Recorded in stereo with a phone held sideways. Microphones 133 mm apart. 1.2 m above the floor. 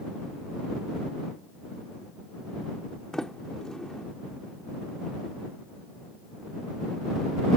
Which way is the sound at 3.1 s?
5° left (ahead or behind).